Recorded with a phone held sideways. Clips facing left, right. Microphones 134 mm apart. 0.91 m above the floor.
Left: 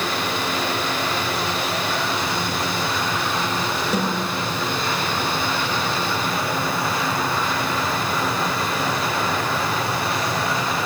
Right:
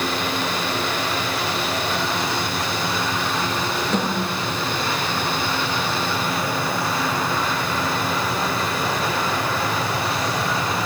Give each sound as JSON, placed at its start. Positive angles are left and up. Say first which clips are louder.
{"t": 3.9, "sound": "a snare drum", "louder": "even", "side_deg": 10, "distance_m": 3.0}